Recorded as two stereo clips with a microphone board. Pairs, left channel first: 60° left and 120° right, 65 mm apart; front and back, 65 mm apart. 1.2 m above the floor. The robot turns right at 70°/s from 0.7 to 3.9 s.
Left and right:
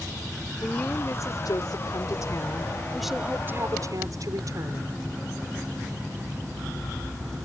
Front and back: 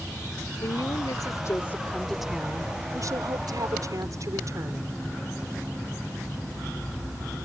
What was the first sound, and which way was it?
A woman speaking, 10° right.